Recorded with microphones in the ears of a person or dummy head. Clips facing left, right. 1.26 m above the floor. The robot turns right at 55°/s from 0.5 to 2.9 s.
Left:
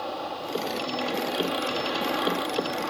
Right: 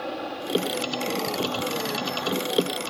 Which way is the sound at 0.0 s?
25° right.